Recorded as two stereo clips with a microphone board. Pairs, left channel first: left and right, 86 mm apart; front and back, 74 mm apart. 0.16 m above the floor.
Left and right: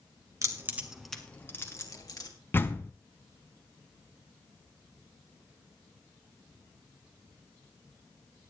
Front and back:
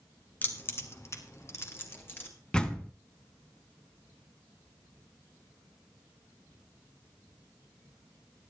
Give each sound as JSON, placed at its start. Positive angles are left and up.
{"t": 0.4, "sound": "keys jangling", "azimuth_deg": -55, "distance_m": 1.5}
{"t": 2.5, "sound": "a door slam", "azimuth_deg": 65, "distance_m": 0.9}